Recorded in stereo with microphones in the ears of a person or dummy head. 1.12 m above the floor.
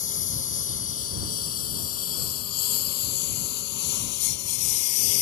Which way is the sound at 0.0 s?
40° left (ahead or behind).